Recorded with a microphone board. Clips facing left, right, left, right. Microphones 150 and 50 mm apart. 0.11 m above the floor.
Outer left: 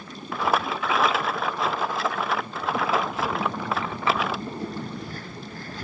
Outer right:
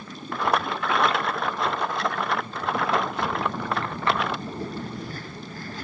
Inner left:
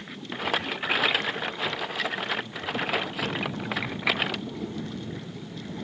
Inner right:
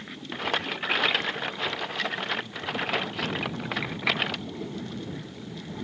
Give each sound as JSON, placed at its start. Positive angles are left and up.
{"t": 0.3, "sound": "a rattle", "side_deg": 0}